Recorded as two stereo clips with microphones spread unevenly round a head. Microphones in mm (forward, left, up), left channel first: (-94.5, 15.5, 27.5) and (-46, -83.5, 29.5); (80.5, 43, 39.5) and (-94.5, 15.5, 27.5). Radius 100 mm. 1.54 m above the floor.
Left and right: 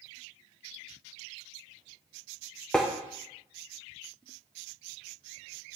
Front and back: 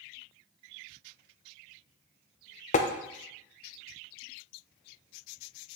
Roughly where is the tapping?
Ahead left.